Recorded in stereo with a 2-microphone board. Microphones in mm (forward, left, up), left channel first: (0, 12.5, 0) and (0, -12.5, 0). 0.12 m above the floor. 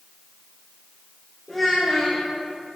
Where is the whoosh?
I don't hear a whoosh.